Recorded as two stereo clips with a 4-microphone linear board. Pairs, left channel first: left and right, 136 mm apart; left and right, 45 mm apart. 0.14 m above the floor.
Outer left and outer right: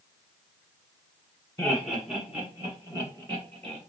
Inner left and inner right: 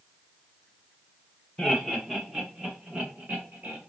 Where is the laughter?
10° left (ahead or behind), 1.1 m; by 3.8 s 40° right (ahead or behind), 1.6 m.